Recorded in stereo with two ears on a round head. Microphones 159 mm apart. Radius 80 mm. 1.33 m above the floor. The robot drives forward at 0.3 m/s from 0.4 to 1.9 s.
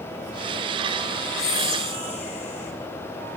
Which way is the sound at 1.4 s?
40° left (ahead or behind).